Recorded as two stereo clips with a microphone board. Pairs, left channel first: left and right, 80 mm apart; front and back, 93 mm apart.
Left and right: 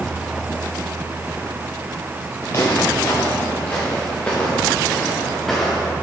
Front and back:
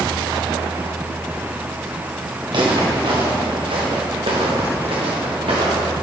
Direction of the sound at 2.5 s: 145° left.